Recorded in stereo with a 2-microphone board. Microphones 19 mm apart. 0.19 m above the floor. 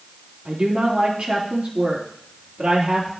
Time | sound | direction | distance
0.5 | a woman speaking | 65° right (ahead or behind) | 3.5 m